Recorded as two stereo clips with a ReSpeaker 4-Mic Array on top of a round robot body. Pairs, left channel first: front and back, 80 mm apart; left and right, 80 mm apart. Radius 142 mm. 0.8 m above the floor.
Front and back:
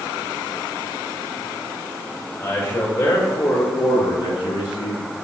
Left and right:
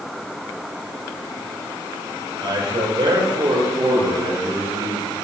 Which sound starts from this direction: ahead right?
A man speaking, at 2.4 s.